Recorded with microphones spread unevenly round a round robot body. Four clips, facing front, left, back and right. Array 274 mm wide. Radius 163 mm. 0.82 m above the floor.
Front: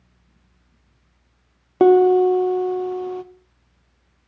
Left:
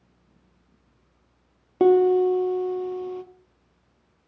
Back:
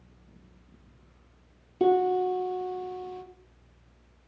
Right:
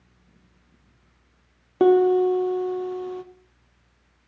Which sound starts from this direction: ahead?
A piano, at 1.8 s.